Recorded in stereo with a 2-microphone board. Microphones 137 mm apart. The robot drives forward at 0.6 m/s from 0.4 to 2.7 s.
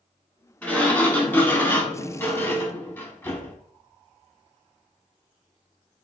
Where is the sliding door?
10° left (ahead or behind), 1.2 m; by 3.5 s 15° left (ahead or behind), 0.8 m.